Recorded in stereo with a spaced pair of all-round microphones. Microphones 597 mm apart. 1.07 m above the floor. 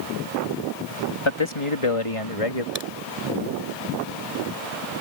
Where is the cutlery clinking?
I don't hear cutlery clinking.